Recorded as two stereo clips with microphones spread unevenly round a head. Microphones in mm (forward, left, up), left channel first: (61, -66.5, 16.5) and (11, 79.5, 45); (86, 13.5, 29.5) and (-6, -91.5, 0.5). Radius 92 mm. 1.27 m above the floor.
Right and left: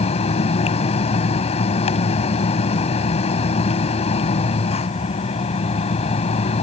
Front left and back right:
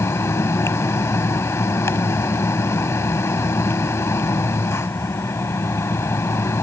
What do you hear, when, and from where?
0.0 s a fan: 20° right